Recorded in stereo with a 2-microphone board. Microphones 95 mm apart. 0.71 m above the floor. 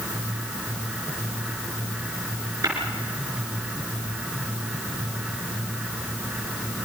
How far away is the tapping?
About 5 m.